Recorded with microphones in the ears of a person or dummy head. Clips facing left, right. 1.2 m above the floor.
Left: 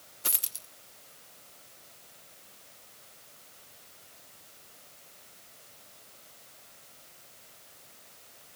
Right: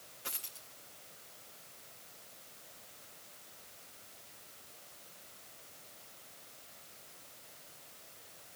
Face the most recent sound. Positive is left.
turn(degrees=65)  # may be behind; listen again after turning